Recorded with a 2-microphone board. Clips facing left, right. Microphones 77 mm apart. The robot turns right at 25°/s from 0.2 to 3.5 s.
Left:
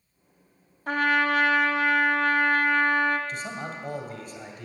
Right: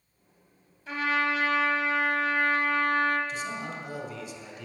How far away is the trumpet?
About 1.2 m.